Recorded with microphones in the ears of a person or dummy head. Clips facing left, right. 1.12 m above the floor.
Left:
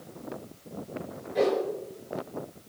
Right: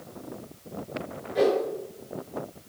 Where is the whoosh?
5° right (ahead or behind), 3 m.